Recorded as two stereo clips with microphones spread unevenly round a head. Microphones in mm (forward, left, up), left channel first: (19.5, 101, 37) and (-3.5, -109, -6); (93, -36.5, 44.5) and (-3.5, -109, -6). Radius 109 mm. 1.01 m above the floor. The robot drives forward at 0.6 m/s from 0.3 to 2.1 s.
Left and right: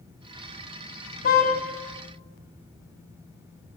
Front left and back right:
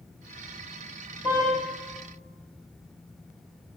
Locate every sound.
1.2 s a car horn: 130° left, 4 m; by 1.5 s 135° left, 4 m